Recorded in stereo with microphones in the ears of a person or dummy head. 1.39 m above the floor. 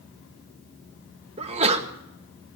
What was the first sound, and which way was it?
A sneeze, 40° right (ahead or behind).